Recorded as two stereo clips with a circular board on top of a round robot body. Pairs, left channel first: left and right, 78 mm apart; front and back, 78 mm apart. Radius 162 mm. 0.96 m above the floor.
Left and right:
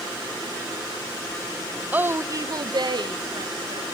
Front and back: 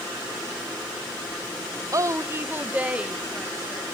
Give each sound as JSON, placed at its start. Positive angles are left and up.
{"t": 1.9, "sound": "a woman speaking", "azimuth_deg": -155, "distance_m": 1.0}